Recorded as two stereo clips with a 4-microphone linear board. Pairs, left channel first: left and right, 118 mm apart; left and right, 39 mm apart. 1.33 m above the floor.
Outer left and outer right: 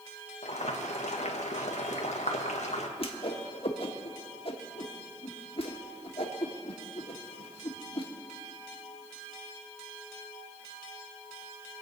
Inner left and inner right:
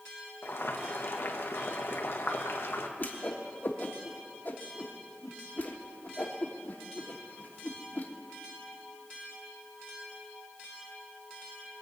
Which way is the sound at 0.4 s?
75° left (ahead or behind).